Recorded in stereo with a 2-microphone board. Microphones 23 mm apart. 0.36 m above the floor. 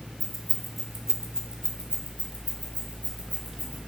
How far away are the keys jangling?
About 1.3 m.